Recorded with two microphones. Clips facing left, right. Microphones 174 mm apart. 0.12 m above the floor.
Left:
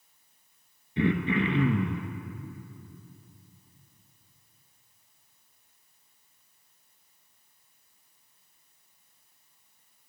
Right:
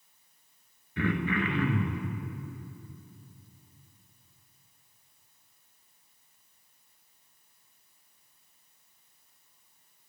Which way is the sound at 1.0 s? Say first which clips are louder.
Left 4 dB; 25° left (ahead or behind).